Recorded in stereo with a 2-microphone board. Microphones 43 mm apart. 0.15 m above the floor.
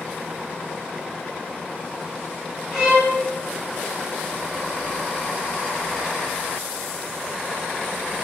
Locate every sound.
2.7 s a violin: 5° right (ahead or behind), 1.4 m